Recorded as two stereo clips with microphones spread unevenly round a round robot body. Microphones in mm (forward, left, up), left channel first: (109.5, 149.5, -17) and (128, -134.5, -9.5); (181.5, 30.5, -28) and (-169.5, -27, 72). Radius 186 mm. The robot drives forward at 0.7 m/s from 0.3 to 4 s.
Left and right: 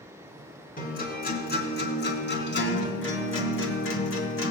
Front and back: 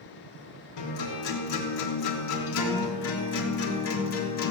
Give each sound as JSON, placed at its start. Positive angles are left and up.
{"t": 0.8, "sound": "a guitar", "azimuth_deg": 35, "distance_m": 4.5}